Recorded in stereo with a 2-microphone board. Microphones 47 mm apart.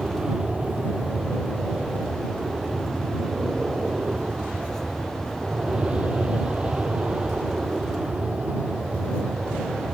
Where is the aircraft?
15° right (ahead or behind); by 10.0 s 25° right (ahead or behind).